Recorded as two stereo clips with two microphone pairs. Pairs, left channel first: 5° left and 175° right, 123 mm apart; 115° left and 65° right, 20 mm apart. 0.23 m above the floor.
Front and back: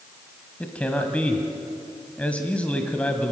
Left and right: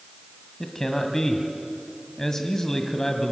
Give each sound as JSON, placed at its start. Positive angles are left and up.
{"t": 0.6, "sound": "a man speaking", "azimuth_deg": 75, "distance_m": 1.4}